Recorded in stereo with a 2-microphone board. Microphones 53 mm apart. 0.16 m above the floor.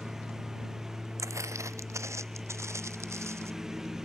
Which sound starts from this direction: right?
Footsteps, at 1.2 s.